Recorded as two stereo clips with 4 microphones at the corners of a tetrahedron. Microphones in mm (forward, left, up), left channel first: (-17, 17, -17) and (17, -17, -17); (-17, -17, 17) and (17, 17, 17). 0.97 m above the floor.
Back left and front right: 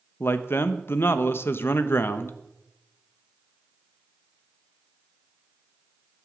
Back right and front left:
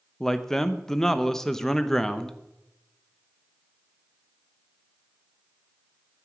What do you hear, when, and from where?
0.2 s a man speaking: 145° left, 1.0 m